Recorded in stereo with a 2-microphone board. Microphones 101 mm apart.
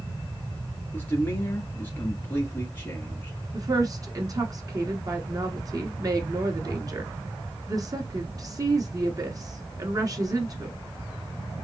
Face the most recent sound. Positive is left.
turn(degrees=-35)  # may be behind; listen again after turning